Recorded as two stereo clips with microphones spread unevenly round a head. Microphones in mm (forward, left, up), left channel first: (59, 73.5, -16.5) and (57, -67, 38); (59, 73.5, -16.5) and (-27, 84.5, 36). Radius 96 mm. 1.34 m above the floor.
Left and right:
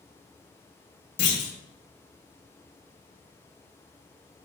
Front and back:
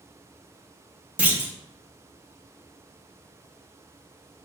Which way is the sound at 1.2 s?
105° left.